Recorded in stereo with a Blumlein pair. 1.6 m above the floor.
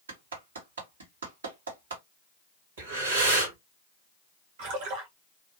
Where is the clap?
65° right, 1.3 m.